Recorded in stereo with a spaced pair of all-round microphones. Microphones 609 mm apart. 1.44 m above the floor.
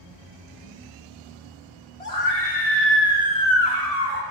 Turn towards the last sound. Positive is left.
turn(degrees=15)  # may be behind; listen again after turning